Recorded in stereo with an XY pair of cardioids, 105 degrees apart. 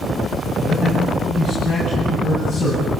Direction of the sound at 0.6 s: 70° left.